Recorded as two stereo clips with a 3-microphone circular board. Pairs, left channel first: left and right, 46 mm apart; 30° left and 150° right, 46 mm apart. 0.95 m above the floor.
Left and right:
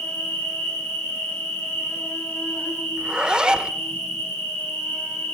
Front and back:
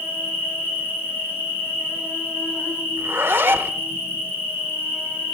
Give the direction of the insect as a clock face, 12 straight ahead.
10 o'clock.